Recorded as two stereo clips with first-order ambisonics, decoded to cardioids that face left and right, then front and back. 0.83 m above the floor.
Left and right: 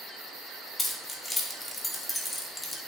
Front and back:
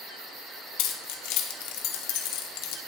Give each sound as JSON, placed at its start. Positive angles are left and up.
{"t": 0.8, "sound": "keys jangling", "azimuth_deg": 10, "distance_m": 1.1}